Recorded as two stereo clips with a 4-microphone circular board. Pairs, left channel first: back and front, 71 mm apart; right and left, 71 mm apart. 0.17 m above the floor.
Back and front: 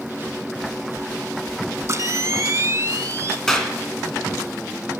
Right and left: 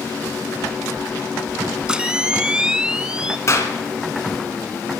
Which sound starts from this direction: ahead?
A camera shutter, at 1.9 s.